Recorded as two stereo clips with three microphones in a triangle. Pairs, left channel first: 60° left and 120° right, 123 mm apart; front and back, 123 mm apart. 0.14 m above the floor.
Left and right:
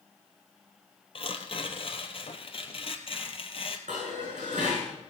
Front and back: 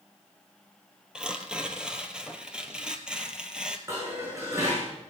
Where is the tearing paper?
95° left, 1.3 m.